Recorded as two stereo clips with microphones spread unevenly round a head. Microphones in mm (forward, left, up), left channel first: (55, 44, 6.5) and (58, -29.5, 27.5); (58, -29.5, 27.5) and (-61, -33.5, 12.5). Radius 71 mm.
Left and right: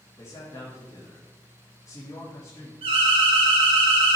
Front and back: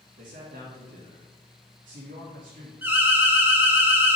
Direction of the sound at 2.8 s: 110° right.